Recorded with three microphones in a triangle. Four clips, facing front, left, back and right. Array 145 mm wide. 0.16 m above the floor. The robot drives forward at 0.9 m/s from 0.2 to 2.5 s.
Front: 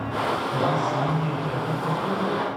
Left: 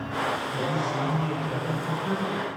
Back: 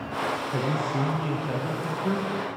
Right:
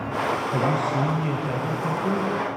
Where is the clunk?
I don't hear a clunk.